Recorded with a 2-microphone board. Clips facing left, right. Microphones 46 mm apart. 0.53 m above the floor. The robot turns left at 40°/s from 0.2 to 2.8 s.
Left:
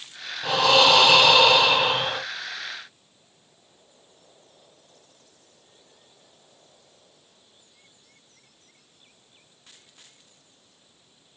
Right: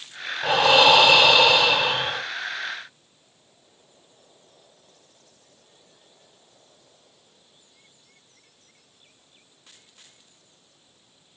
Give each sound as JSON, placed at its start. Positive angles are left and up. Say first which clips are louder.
{"t": 0.4, "sound": "breathing", "louder": "right 2 dB", "azimuth_deg": -140, "distance_m": 1.6}